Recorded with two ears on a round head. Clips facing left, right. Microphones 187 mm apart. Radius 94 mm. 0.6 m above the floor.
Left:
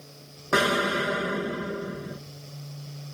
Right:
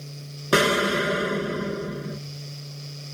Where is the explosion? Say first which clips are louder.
Right 4 dB; 40° right (ahead or behind), 0.7 m.